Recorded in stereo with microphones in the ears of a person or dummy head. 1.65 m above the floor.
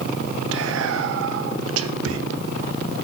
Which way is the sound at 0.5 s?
80° right.